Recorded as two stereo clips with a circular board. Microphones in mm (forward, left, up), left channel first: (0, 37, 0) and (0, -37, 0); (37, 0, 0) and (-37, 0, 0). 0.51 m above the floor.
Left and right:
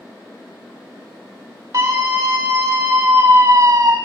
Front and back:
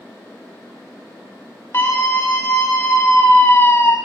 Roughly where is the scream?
Ahead right.